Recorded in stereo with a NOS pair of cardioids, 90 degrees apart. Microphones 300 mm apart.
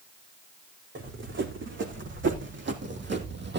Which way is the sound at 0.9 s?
45° right.